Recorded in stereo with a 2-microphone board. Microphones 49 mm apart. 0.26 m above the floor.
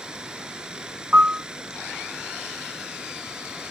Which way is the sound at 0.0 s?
15° right (ahead or behind).